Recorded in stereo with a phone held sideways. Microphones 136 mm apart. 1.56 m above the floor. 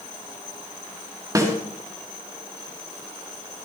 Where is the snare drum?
25° right (ahead or behind), 3 m.